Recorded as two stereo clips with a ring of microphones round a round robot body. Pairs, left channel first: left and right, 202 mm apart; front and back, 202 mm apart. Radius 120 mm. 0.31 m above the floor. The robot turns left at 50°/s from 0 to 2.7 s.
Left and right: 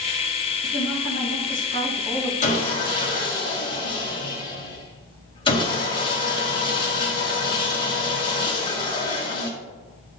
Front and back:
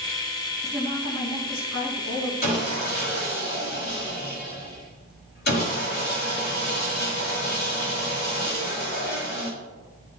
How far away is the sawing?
About 3 m.